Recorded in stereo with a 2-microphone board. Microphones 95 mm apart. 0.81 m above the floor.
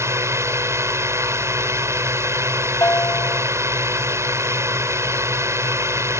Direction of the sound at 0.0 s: 30° right (ahead or behind).